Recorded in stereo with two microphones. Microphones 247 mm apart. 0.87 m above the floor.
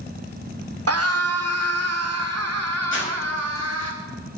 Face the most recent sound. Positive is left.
turn(degrees=50)  # may be behind; listen again after turning